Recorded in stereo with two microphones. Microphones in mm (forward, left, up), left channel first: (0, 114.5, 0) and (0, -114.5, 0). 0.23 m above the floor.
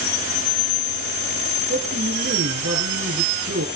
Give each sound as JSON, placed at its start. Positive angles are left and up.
{"t": 1.7, "sound": "a man speaking", "side_deg": -70, "distance_m": 4.5}